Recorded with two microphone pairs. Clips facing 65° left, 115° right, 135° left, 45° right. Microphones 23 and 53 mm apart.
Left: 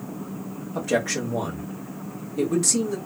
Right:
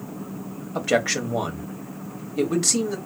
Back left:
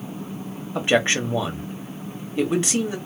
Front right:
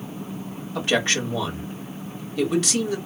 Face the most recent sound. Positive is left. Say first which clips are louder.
# right 2 dB, back left 3 dB
turn(degrees=-165)